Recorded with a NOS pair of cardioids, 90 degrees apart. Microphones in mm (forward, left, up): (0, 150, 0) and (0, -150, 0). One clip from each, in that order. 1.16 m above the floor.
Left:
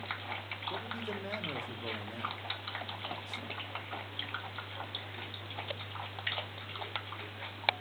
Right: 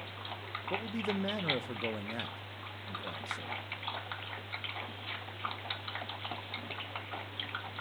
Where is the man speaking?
30° right, 0.6 m.